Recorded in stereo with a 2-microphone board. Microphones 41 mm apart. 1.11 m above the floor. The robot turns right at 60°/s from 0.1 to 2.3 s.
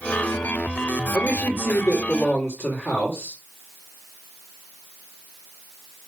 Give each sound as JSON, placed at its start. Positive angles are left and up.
{"t": 1.1, "sound": "a man speaking", "azimuth_deg": 90, "distance_m": 3.0}